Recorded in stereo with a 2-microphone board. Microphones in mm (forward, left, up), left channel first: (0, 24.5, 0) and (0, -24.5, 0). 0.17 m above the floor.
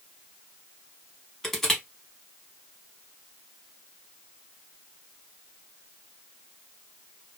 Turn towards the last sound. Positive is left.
turn(degrees=5)  # may be behind; listen again after turning